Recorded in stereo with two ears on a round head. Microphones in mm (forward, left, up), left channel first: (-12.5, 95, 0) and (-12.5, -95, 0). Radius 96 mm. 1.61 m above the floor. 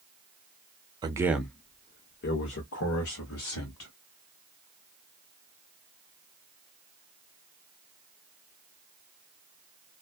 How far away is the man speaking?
About 0.6 m.